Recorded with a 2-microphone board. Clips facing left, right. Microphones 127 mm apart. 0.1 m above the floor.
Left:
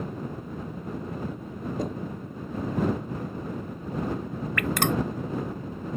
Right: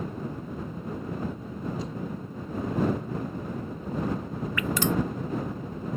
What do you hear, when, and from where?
1.8 s knocking: 50° left (ahead or behind)
4.6 s dripping: 60° left (ahead or behind)